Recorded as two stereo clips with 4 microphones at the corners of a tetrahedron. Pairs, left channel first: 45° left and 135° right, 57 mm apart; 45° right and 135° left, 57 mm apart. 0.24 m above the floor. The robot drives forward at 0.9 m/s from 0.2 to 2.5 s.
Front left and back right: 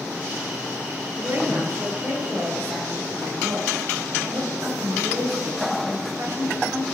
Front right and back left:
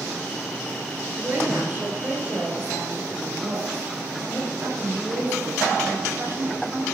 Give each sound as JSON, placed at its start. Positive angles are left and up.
{"t": 1.1, "sound": "a woman speaking", "azimuth_deg": -175, "distance_m": 5.0}